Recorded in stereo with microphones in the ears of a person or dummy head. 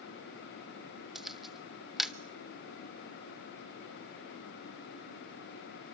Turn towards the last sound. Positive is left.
turn(degrees=0)  # may be behind; listen again after turning